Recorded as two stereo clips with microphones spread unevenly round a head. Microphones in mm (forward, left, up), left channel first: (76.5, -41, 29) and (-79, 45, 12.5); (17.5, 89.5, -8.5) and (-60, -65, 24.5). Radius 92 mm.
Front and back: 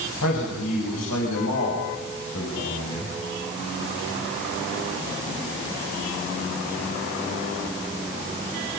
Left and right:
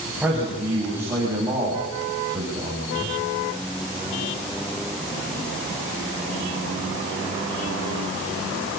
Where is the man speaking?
30° right, 7.5 m; by 3.1 s 50° right, 7.5 m.